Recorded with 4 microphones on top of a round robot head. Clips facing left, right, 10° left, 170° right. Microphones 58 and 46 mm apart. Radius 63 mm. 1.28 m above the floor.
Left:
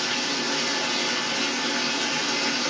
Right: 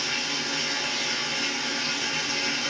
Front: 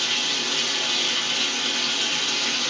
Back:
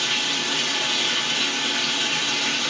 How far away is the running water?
About 0.9 m.